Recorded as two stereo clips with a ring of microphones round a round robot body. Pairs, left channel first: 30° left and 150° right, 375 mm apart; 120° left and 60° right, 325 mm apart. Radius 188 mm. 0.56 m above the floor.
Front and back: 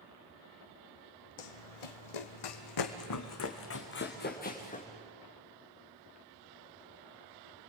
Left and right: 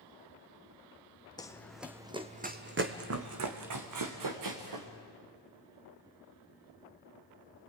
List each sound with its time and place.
1.4 s running footsteps: 40° left, 1.8 m; by 4.9 s 40° right, 3.5 m